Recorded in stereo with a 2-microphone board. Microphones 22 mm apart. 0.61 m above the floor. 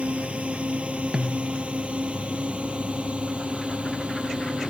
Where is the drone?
55° right (ahead or behind); by 4.7 s 50° right (ahead or behind).